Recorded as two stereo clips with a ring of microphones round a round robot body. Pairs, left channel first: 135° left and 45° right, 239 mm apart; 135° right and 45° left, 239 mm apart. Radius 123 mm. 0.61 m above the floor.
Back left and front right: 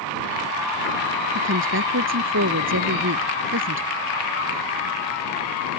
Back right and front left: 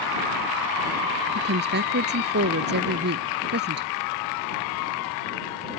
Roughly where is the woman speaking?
Ahead.